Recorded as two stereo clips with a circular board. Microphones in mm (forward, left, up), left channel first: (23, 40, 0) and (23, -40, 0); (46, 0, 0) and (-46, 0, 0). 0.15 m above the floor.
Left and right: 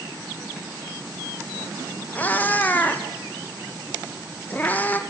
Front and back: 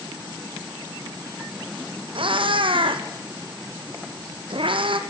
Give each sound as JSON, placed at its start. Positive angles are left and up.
{"t": 2.1, "sound": "a cat meowing", "azimuth_deg": 160, "distance_m": 0.9}